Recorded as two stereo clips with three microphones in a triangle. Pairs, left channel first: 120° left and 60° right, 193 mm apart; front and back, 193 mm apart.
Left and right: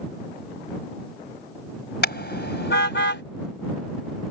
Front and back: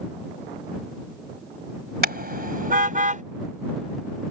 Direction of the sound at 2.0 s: 150° left.